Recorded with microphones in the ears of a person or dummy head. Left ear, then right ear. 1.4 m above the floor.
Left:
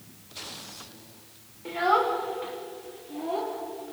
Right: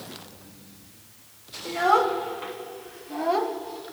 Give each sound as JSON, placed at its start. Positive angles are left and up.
{"t": 1.6, "sound": "a child speaking", "side_deg": -10, "distance_m": 2.5}